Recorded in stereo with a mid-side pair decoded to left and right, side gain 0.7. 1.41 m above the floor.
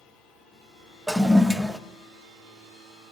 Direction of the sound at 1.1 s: 5° right.